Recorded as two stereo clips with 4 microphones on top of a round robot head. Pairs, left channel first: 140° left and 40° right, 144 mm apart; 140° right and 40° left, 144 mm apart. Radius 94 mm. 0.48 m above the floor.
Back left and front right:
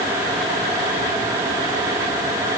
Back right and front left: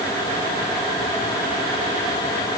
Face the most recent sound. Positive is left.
No sound to turn to.